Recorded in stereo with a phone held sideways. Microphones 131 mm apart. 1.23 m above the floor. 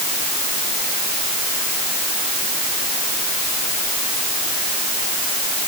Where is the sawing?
No sawing in this recording.